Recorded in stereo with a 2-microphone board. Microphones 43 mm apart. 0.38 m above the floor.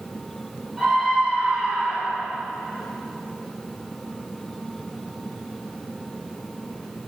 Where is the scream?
10° right (ahead or behind), 5.5 m; by 2.3 s 25° right (ahead or behind), 6 m.